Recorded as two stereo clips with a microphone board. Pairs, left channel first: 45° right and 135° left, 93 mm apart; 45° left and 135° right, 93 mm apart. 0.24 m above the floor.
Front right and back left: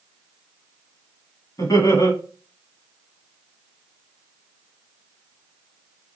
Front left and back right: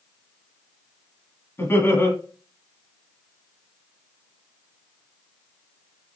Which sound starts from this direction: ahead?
Laughter, at 1.6 s.